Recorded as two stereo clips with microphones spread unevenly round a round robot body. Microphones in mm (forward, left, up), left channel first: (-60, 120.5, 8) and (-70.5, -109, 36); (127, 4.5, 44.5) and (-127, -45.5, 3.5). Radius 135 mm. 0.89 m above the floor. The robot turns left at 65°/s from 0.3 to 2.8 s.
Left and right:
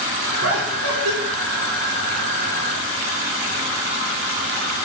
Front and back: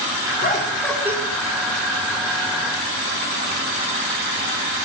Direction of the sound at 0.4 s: 45° right.